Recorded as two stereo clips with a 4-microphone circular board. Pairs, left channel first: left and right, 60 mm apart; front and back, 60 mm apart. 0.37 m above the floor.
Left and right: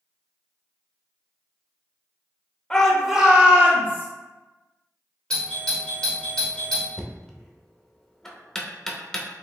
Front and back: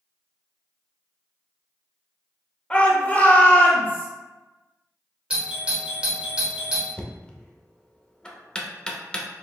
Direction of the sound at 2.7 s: 30° left.